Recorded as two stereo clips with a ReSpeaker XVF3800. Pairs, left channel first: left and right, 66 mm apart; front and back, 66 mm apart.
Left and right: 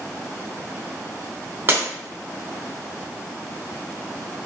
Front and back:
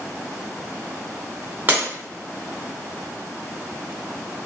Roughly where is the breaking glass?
Behind right.